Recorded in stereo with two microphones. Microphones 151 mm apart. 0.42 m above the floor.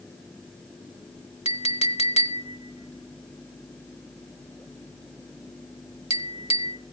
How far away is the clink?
About 0.9 m.